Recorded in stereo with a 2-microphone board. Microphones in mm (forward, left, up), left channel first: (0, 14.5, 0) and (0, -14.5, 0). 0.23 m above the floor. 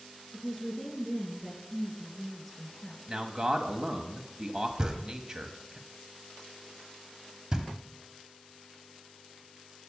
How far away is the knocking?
About 1.2 m.